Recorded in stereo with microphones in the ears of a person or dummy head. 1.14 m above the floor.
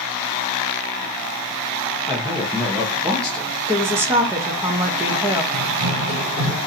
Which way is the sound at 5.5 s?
60° right (ahead or behind).